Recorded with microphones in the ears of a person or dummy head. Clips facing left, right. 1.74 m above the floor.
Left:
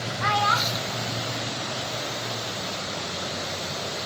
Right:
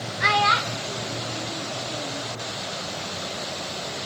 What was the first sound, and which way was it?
A child speaking, 35° right (ahead or behind).